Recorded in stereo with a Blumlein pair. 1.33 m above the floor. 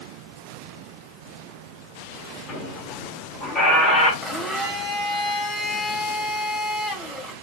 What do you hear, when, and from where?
2.5 s a squeak: 25° left, 1.6 m
4.2 s a blender: 5° left, 1.1 m